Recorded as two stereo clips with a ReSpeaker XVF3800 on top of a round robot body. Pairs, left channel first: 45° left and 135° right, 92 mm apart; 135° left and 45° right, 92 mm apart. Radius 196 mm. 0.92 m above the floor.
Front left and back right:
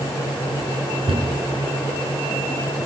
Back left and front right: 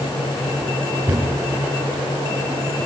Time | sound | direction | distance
1.1 | a cupboard door | 115° right | 6 m